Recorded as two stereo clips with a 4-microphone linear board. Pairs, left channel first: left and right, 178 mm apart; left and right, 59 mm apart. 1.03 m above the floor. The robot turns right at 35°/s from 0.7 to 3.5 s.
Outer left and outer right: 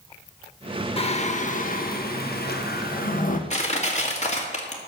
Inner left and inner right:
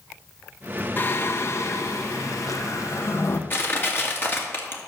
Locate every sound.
1.0 s singing: 40° left, 1.2 m; by 3.4 s 125° left, 1.2 m
3.5 s crushing: 40° left (ahead or behind), 2 m